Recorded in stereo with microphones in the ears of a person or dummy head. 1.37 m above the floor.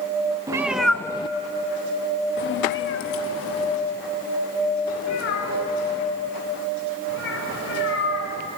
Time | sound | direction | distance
0.5 | a cat meowing | 20° right (ahead or behind) | 0.6 m